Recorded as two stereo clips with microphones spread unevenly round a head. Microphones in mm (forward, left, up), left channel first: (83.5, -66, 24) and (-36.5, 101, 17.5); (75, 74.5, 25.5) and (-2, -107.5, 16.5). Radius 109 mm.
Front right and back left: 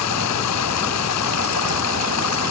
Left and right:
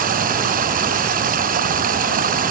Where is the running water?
65° right.